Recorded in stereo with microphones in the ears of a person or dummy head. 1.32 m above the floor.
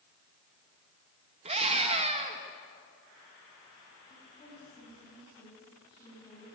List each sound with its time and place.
1.4 s a scream: 30° right (ahead or behind), 1.7 m
4.1 s a woman speaking: 25° left (ahead or behind), 8 m